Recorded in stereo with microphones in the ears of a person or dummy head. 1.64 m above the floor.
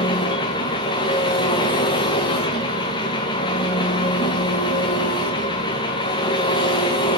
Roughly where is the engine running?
Left.